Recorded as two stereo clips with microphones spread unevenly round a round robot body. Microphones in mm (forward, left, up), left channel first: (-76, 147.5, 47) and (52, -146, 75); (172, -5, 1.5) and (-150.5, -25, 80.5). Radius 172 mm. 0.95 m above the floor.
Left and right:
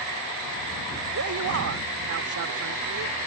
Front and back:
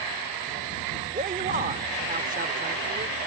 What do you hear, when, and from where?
1.1 s a man speaking: 110° right